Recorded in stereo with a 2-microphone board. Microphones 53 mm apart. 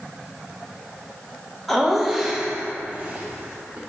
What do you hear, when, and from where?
1.7 s laughter: 5° left (ahead or behind), 1.1 m; by 3.8 s 45° right (ahead or behind), 1.0 m